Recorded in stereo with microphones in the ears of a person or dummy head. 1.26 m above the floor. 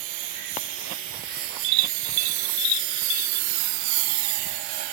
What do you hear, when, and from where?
0.0 s a lawn mower: 70° right (ahead or behind); by 5.0 s 25° right (ahead or behind)